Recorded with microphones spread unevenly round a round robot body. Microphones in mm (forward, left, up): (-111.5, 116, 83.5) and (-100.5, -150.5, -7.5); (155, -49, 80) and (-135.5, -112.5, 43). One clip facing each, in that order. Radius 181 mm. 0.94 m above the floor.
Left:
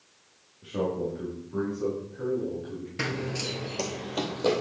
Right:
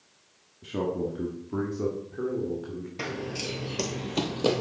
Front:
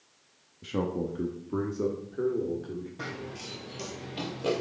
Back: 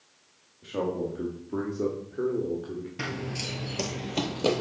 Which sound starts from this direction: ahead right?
A man speaking, at 0.6 s.